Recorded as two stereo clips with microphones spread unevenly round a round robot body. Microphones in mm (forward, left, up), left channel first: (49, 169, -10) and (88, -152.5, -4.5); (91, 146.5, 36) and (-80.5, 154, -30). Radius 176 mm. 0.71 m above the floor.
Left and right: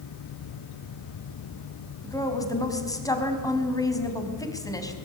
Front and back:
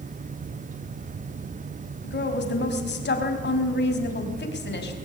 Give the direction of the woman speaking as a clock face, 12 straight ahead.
11 o'clock.